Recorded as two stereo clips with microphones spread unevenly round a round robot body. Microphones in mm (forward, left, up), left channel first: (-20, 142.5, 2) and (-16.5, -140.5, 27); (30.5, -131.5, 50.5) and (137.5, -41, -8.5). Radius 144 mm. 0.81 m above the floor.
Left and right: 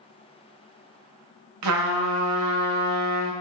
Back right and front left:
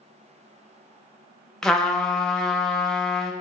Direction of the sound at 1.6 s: 50° right.